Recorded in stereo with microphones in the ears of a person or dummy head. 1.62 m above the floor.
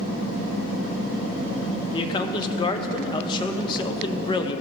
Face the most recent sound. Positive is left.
turn(degrees=25)  # may be behind; listen again after turning